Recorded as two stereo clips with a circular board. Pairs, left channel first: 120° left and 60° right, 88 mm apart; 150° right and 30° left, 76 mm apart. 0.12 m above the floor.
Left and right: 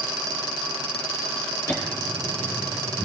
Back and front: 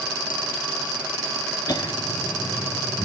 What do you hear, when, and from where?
1.7 s laughter: 175° right, 2.5 m; by 3.0 s 165° right, 3 m